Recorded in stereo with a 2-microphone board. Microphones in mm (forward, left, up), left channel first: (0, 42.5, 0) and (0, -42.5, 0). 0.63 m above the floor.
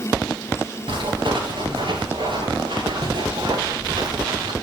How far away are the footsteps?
About 8.5 m.